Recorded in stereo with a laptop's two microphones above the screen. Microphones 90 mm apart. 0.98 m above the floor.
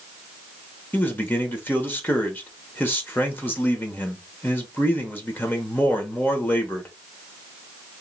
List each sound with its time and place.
0.9 s a man speaking: 20° left (ahead or behind), 0.9 m